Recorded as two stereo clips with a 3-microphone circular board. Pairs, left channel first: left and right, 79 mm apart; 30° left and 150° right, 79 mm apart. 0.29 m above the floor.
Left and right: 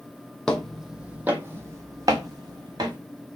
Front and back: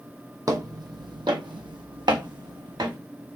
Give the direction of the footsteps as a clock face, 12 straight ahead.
6 o'clock.